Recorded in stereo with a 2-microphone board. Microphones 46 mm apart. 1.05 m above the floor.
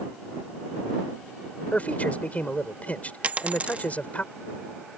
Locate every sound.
1.7 s a man speaking: 30° left (ahead or behind)
3.2 s a dropped coin: 35° right (ahead or behind)